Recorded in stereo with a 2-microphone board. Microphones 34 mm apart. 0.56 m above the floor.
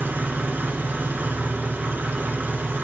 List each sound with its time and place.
0.0 s an engine running: 80° right, 2.5 m